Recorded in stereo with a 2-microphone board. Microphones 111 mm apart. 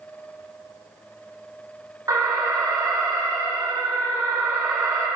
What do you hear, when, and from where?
2.1 s an alarm: 30° right (ahead or behind), 7 m